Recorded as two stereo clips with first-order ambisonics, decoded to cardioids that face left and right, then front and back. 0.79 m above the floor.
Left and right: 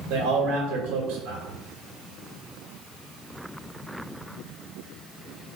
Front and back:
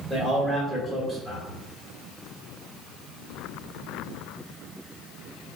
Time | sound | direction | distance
0.1 | a man speaking | 100° right | 1.7 m